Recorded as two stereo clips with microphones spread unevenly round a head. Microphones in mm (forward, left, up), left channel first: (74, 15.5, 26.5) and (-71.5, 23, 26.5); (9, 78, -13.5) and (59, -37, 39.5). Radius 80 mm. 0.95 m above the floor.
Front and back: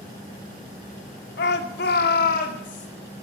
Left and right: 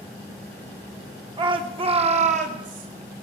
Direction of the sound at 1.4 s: 10° right.